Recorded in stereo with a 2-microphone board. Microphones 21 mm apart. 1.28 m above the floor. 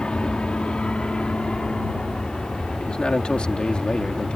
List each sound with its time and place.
0.0 s an aircraft: 45° left (ahead or behind); by 4.4 s 55° left (ahead or behind)
2.8 s a man speaking: 50° left (ahead or behind)